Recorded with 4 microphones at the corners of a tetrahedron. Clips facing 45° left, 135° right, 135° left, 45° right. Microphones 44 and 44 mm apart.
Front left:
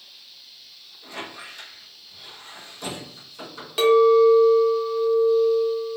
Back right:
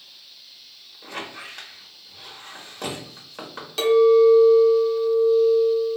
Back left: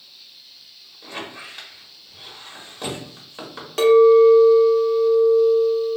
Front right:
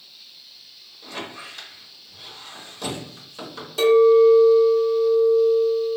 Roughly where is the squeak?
Behind.